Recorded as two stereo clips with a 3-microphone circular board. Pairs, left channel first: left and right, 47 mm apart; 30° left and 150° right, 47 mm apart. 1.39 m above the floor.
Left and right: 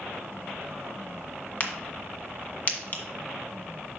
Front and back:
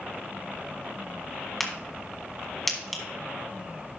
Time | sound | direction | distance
1.6 | a crack | 120° left | 1.6 m